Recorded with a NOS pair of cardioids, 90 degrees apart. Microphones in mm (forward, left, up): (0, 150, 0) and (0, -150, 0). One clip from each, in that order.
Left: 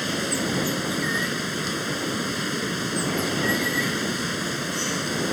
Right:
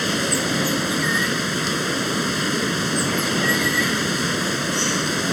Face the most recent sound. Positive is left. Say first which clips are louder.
# right 4 dB
turn(degrees=-35)